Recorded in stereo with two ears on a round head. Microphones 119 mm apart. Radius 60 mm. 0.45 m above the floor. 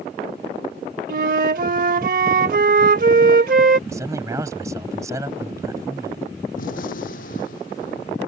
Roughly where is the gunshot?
Left.